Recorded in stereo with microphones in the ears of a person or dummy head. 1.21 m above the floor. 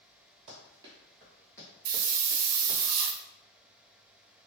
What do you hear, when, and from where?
0.5 s running footsteps: 30° right (ahead or behind), 1.7 m; by 2.8 s 50° left (ahead or behind), 1.9 m
1.9 s a hiss: 85° right, 0.8 m